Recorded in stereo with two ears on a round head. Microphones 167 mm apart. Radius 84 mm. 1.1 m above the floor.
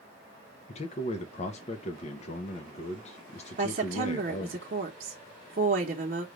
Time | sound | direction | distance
0.7 | a man speaking | 35° left (ahead or behind) | 0.6 m
3.6 | a woman speaking | 50° right (ahead or behind) | 0.8 m